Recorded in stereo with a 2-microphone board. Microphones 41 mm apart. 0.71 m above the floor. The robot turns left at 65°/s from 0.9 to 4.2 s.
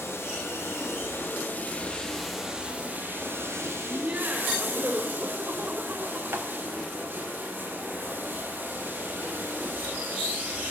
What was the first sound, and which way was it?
Running water, 90° left.